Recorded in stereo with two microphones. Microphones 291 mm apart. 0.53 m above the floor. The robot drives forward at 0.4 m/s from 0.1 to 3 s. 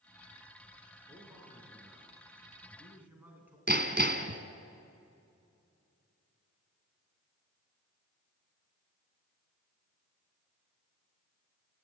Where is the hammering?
35° right (ahead or behind), 1.4 m.